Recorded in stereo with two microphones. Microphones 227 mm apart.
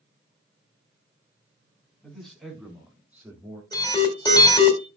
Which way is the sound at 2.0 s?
5° left (ahead or behind).